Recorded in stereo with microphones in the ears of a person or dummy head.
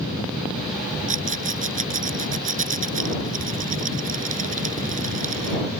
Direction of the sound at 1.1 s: 35° right (ahead or behind).